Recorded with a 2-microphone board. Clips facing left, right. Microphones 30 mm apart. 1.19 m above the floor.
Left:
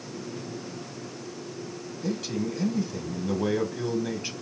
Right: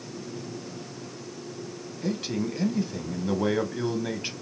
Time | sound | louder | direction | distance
2.0 | a man speaking | right 1 dB | 25° right (ahead or behind) | 1.1 m